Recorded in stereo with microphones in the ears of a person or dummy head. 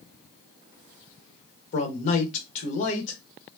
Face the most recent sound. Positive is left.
turn(degrees=45)  # may be behind; listen again after turning